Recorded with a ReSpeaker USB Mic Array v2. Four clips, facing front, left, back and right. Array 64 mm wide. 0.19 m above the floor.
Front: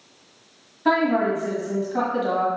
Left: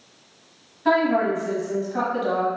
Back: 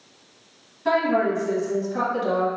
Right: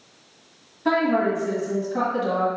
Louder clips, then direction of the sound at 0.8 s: Left 1 dB, front 1 dB; 20° left.